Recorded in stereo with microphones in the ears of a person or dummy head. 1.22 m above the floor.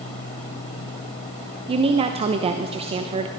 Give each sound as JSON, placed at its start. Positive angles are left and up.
{"t": 1.7, "sound": "a woman speaking", "side_deg": -25, "distance_m": 0.7}